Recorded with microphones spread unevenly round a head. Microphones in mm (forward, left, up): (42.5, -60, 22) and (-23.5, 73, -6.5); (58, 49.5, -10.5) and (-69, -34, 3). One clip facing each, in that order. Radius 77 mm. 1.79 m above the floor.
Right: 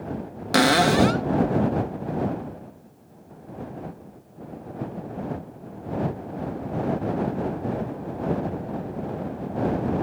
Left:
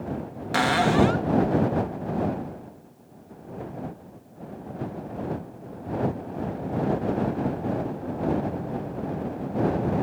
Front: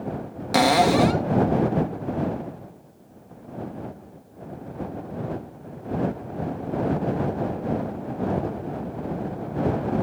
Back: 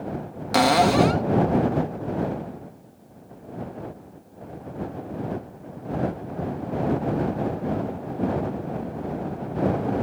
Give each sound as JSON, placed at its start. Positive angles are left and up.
{"t": 0.5, "sound": "a cupboard door", "azimuth_deg": -55}